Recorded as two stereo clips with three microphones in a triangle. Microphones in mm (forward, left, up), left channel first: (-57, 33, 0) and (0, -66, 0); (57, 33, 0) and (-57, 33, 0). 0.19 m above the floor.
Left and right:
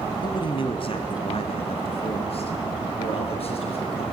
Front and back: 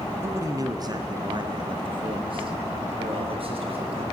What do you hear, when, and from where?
0.2 s a man speaking: 125° left, 1.8 m; by 4.0 s 150° left, 5.5 m